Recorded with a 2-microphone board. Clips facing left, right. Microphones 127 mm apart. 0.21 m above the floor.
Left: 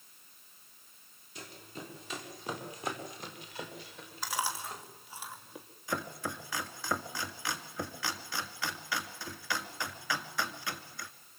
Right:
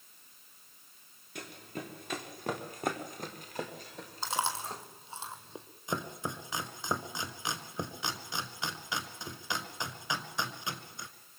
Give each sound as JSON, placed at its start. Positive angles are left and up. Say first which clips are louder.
{"t": 1.4, "sound": "running footsteps", "louder": "right 4 dB", "side_deg": -60, "distance_m": 5.5}
{"t": 4.2, "sound": "chewing", "louder": "right 2 dB", "side_deg": -25, "distance_m": 2.5}
{"t": 5.9, "sound": "chopping", "louder": "even", "side_deg": -20, "distance_m": 1.7}